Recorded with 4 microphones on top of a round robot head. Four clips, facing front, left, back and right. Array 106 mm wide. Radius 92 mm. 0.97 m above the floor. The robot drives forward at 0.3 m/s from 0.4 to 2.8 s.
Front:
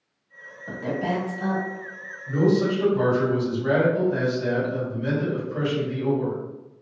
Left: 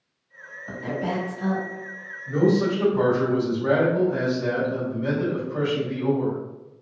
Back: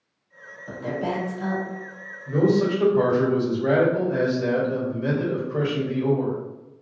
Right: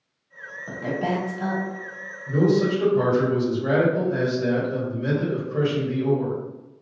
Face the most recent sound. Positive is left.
turn(degrees=180)